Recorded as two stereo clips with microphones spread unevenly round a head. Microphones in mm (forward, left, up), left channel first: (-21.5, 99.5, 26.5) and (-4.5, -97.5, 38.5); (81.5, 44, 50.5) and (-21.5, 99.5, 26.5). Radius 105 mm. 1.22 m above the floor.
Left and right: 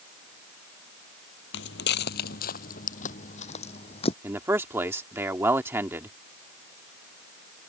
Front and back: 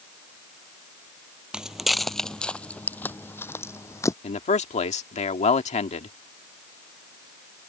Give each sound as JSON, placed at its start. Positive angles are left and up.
{"t": 1.5, "sound": "footsteps", "azimuth_deg": 60}
{"t": 4.2, "sound": "a man speaking", "azimuth_deg": -5}